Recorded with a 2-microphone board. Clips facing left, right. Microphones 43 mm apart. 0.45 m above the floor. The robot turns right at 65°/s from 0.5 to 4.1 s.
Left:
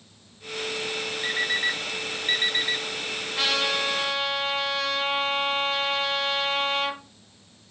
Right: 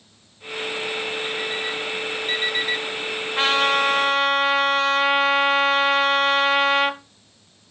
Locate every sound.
1.2 s an alarm clock: 75° left (ahead or behind), 2 m; by 2.8 s 5° right (ahead or behind), 2 m
3.4 s a trumpet: 130° right, 1.7 m; by 7.0 s 85° right, 1.7 m